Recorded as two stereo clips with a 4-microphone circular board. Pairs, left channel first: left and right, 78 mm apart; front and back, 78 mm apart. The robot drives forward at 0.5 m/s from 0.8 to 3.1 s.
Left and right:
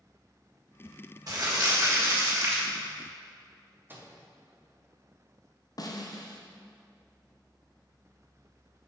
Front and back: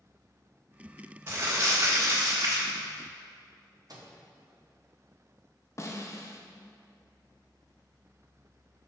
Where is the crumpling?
125° right, 1.5 m; by 2.6 s 145° right, 1.9 m.